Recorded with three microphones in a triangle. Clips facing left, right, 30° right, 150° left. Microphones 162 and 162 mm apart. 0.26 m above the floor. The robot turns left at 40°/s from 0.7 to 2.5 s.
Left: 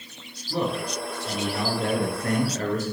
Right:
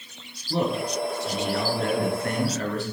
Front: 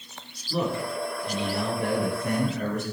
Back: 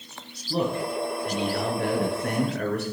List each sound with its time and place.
0.5 s a man speaking: 155° right, 3.5 m; by 2.8 s 135° left, 3.5 m